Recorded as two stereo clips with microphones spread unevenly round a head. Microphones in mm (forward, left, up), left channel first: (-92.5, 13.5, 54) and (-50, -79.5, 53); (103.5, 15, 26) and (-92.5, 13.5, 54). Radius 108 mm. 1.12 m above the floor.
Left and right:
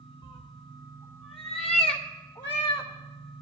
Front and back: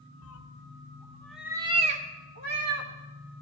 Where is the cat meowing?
15° left, 1.0 m; by 2.9 s 150° left, 1.7 m.